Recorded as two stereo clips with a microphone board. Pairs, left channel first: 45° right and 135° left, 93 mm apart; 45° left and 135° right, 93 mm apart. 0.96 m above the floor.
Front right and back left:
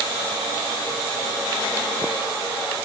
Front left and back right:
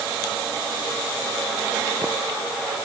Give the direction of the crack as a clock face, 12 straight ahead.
No crack in this recording.